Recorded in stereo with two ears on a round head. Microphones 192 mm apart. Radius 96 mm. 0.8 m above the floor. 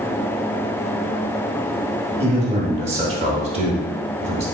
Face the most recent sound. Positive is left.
turn(degrees=-30)  # may be behind; listen again after turning